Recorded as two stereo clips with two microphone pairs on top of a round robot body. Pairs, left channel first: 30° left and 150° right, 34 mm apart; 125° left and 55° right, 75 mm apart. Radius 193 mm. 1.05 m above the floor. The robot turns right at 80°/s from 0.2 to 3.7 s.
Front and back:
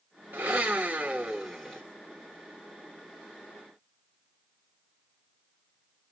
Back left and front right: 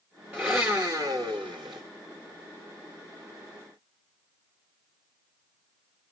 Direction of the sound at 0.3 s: 130° right.